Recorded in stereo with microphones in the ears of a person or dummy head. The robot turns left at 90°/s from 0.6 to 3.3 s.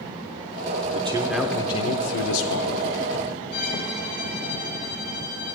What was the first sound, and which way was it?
A man speaking, 135° right.